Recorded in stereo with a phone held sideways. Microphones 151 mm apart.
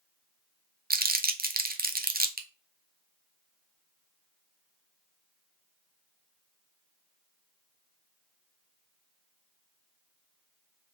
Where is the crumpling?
80° right, 0.5 m.